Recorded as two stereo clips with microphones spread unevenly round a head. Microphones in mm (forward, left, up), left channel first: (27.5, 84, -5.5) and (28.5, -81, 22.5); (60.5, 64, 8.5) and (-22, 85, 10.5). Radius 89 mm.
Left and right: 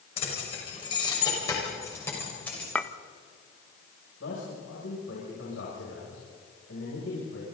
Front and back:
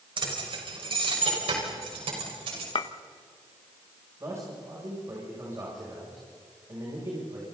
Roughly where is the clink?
Ahead.